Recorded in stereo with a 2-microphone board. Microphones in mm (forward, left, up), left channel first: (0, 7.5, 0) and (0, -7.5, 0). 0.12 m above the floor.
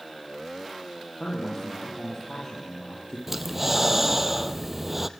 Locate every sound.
1.2 s a man speaking: 55° left (ahead or behind), 5 m
3.3 s breathing: 15° right (ahead or behind), 0.9 m